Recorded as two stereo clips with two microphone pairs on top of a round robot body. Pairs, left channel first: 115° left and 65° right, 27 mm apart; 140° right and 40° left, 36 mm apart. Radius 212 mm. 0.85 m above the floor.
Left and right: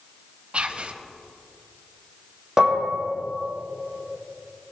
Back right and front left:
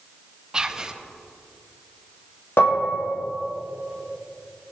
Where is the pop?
No pop in this recording.